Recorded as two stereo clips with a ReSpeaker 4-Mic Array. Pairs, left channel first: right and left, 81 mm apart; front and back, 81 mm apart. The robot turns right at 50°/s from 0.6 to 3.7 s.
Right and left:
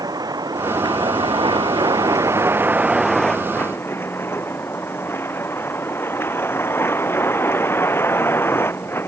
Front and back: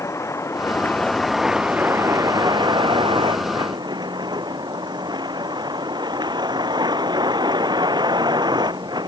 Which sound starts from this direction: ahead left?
A vehicle, at 0.0 s.